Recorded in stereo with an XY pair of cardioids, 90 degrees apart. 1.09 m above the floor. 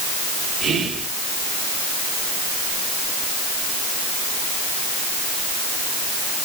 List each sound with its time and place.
0.6 s whispering: 70° right, 1.0 m